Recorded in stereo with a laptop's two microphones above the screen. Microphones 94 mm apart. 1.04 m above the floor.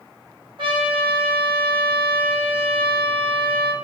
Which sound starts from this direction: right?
A trumpet, at 0.6 s.